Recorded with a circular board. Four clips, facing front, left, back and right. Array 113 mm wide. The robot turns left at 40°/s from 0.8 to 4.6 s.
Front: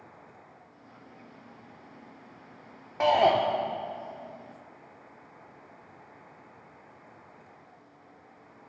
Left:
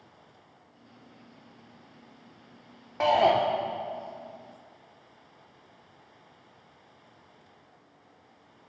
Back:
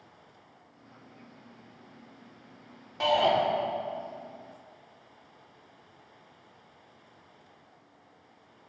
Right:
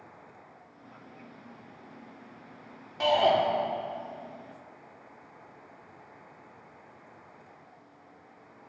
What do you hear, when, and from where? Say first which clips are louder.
3.0 s a shout: left 2 dB, front 3 dB; 45° left, 0.8 m; by 3.4 s 30° left, 0.8 m